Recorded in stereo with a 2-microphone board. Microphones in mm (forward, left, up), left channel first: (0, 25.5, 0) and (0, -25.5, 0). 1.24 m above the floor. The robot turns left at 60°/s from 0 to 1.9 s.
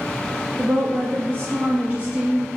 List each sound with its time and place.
0.6 s a woman speaking: 70° right, 0.5 m; by 2.5 s 150° right, 0.5 m